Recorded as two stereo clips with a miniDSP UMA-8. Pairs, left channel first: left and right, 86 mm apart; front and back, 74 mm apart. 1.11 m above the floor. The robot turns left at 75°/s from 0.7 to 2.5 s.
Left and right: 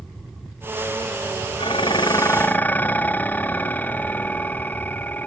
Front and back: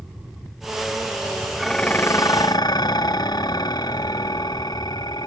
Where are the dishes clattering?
90° left, 0.6 m; by 5.3 s 20° left, 0.6 m.